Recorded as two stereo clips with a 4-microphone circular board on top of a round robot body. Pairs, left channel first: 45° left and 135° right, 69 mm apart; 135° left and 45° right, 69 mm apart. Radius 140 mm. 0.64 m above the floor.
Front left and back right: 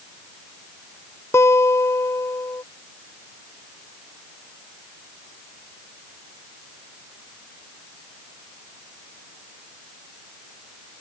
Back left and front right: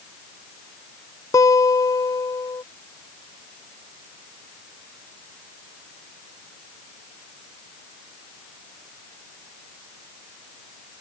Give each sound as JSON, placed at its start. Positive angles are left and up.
{"t": 1.3, "sound": "a guitar", "azimuth_deg": 95}